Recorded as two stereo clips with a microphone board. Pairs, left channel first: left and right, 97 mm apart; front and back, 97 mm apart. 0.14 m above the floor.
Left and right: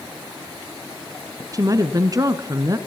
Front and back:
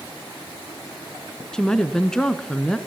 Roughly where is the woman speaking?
Right.